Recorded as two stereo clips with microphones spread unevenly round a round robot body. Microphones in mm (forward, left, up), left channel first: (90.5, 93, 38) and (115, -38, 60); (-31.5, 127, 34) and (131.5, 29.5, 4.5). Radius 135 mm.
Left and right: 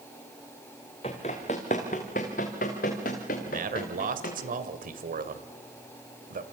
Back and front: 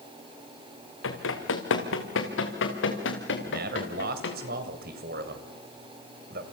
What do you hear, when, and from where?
1.0 s running footsteps: 170° left, 2.5 m; by 4.4 s 135° left, 4 m
3.5 s a man speaking: 75° right, 2.5 m